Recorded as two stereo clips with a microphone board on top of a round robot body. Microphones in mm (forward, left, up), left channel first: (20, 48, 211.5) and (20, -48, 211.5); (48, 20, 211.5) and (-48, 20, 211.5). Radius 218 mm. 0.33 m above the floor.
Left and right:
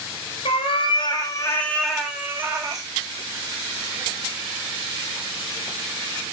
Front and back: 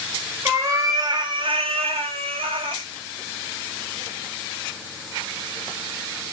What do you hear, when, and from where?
0.5 s a cat meowing: 115° left, 0.8 m; by 2.9 s 145° right, 0.8 m